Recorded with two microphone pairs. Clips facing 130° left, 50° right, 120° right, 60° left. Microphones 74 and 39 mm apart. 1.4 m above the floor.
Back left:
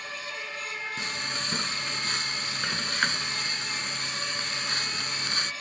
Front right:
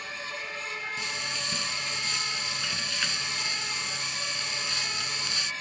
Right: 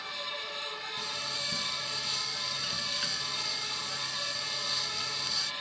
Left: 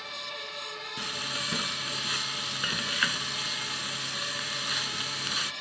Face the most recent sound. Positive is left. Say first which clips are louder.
# back left 1 dB, left 6 dB
turn(degrees=90)